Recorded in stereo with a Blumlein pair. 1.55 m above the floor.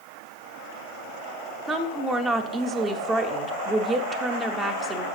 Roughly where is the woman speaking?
Ahead.